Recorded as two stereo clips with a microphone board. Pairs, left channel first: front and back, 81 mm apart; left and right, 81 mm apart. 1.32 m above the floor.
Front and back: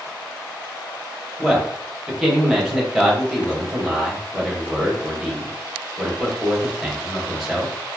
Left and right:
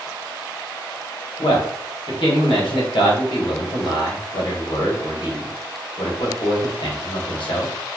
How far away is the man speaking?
About 1.1 m.